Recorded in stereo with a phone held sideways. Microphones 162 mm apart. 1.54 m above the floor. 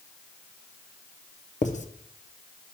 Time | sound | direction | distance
1.6 | writing | 50° left (ahead or behind) | 0.6 m